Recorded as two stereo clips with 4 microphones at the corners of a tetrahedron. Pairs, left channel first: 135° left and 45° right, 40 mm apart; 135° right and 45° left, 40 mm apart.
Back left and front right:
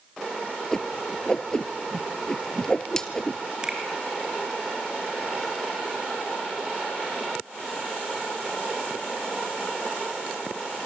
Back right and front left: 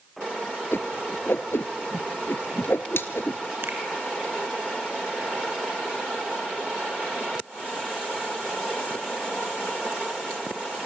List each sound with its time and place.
0.7 s a whoosh: 150° right, 1.2 m
3.6 s a finger snap: 25° left, 2.5 m